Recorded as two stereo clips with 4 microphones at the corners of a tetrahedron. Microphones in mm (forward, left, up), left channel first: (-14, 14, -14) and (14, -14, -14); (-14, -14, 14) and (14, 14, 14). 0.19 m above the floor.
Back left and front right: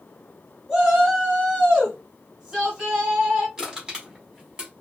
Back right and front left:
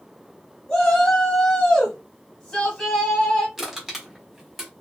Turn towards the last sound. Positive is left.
turn(degrees=-30)